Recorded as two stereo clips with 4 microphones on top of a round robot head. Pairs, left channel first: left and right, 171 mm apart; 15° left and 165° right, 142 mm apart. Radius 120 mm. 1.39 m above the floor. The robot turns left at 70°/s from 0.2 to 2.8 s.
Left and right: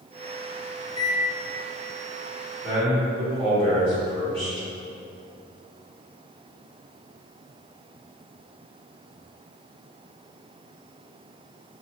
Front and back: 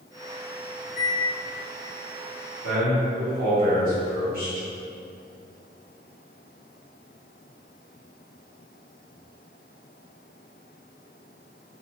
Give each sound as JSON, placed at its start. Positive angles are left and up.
{"t": 0.8, "sound": "a microwave", "azimuth_deg": 40, "distance_m": 1.1}
{"t": 2.6, "sound": "a man speaking", "azimuth_deg": -175, "distance_m": 1.3}